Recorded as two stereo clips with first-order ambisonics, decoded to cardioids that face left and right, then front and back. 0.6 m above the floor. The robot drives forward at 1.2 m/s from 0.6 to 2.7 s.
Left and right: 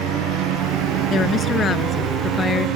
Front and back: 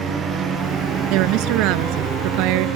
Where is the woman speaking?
155° left; by 2.7 s 160° left.